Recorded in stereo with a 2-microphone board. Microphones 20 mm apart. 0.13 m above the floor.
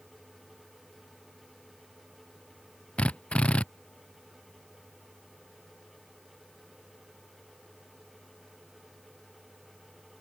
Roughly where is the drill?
Left.